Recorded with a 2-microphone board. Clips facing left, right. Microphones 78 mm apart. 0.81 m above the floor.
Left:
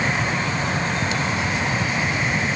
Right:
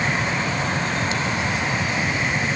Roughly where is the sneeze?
I don't hear a sneeze.